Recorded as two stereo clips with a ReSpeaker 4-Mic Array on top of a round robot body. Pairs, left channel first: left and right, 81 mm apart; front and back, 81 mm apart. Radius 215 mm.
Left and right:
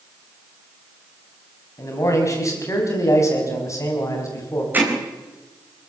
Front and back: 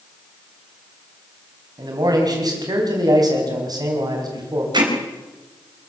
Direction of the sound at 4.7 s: 155° right.